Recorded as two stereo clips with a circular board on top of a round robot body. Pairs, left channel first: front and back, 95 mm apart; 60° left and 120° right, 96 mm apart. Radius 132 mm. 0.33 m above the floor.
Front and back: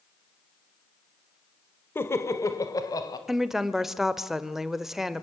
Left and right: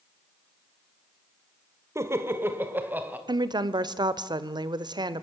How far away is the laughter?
About 1.7 m.